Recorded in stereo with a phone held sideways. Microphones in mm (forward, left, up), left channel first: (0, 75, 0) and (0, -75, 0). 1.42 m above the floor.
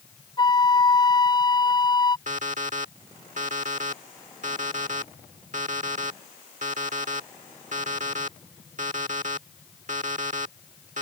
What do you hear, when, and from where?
0.4 s a flute: 30° left (ahead or behind)
2.3 s an alarm clock: 55° right (ahead or behind)